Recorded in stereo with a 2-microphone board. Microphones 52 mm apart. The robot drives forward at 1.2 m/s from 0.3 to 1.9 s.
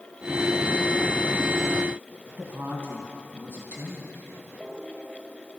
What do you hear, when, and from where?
2.4 s a woman speaking: 50° right (ahead or behind), 2.5 m